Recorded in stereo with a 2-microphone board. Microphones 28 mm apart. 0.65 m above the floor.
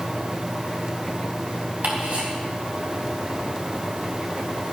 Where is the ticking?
65° right (ahead or behind), 4 m.